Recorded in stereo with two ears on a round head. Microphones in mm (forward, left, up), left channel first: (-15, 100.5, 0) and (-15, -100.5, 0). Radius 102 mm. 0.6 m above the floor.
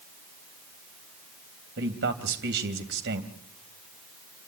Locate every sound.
1.8 s a man speaking: 50° right (ahead or behind), 3.5 m